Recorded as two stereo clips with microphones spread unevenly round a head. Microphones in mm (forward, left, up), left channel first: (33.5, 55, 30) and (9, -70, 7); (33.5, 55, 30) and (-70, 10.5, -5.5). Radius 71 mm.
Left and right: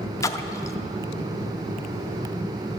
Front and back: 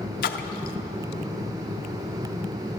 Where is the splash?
10° left, 0.5 m.